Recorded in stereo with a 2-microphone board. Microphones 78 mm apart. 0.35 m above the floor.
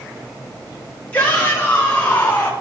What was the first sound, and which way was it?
A shout, 15° left (ahead or behind).